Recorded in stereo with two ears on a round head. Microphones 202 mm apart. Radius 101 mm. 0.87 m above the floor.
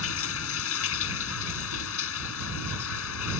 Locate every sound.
0.0 s running water: 70° left (ahead or behind)